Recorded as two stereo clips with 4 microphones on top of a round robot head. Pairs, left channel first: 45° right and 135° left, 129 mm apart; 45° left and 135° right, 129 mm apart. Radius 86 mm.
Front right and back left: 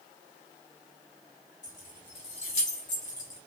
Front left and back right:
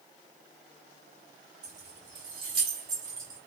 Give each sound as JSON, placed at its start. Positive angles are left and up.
{"t": 1.6, "sound": "keys jangling", "azimuth_deg": -105, "distance_m": 1.2}